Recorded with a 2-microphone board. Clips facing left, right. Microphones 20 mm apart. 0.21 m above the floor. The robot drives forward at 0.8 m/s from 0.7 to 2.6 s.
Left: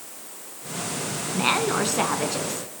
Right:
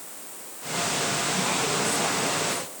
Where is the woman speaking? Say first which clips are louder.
Left 3 dB; 55° left (ahead or behind), 2.5 m.